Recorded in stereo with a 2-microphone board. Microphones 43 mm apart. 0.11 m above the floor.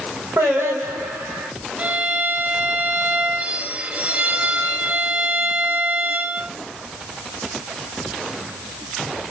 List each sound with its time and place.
0.4 s singing: 75° right (ahead or behind), 4 m
1.8 s a violin: 35° right (ahead or behind), 1.2 m